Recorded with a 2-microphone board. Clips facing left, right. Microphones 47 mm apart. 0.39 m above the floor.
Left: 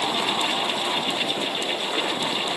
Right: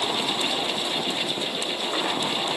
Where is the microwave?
I don't hear a microwave.